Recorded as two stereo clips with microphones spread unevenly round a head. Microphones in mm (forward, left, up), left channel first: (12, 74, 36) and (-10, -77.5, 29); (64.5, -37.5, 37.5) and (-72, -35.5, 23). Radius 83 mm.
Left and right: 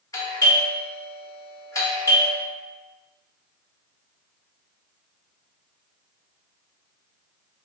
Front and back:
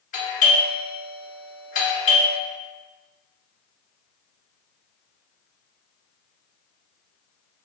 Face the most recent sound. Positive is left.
turn(degrees=15)